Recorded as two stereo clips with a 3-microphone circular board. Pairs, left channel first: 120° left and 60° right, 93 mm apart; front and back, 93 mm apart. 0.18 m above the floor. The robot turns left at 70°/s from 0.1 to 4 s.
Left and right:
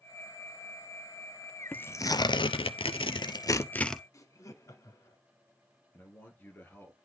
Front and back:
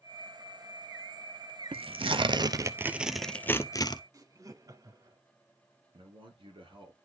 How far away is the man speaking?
About 3 m.